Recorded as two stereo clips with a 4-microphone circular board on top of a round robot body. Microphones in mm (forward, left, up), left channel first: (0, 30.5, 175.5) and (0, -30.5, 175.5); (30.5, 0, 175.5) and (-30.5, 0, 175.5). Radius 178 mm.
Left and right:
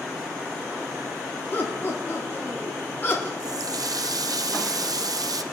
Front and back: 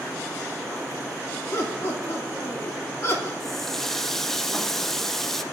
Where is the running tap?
85° right, 0.5 m.